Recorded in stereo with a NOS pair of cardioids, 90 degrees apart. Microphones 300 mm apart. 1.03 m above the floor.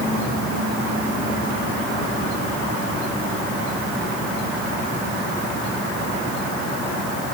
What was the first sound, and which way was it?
Only background noise.